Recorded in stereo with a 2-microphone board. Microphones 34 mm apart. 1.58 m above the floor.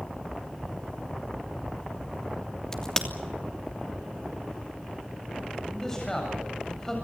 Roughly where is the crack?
Left.